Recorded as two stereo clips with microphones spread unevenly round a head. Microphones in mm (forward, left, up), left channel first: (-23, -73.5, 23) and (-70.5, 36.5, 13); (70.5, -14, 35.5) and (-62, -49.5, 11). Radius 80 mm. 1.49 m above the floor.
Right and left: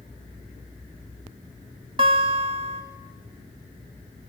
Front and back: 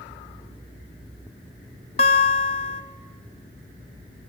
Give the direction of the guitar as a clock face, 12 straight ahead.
10 o'clock.